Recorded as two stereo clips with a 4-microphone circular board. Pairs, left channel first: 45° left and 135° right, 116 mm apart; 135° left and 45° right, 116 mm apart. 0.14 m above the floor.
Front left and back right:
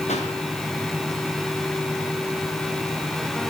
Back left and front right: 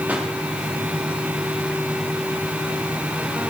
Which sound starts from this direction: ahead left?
A pop, at 0.1 s.